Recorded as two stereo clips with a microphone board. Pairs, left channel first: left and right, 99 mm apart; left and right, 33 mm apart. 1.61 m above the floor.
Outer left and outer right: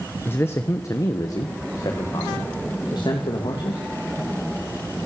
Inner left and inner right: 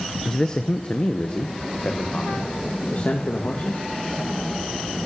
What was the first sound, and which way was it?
A man speaking, 20° left (ahead or behind).